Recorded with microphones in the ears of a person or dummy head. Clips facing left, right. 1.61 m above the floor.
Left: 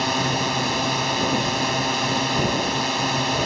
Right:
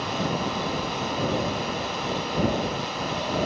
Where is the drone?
75° left (ahead or behind).